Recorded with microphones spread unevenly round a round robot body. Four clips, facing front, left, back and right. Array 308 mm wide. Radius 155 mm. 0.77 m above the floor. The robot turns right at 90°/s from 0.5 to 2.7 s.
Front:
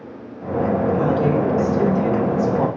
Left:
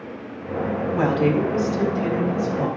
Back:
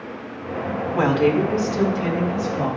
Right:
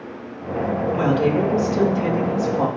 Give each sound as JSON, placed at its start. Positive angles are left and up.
{"t": 0.9, "sound": "a woman speaking", "azimuth_deg": 165, "distance_m": 2.5}